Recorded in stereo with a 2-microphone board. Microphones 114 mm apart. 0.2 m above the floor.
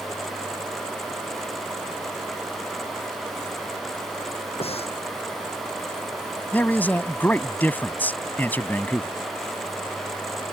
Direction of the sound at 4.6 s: 60° left (ahead or behind).